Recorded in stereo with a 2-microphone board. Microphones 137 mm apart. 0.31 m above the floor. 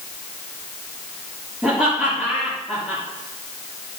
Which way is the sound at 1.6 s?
5° right (ahead or behind).